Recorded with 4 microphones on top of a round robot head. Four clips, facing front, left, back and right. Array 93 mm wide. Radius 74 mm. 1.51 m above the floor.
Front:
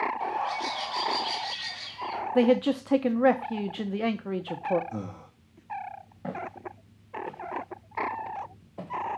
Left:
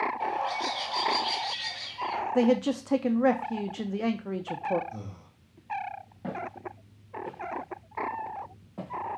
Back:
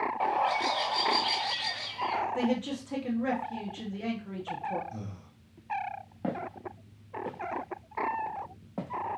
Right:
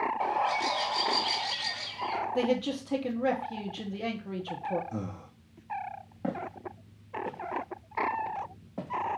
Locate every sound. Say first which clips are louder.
0.2 s a bird: right 2 dB, back 2 dB; 145° right, 1.1 m
2.4 s a man speaking: left 6 dB, front 8 dB; 25° left, 0.6 m
4.9 s breathing: right 5 dB, front 6 dB; 40° right, 0.8 m
6.2 s footsteps: right 1 dB, back 1 dB; 150° right, 1.9 m; by 8.9 s 170° right, 3.5 m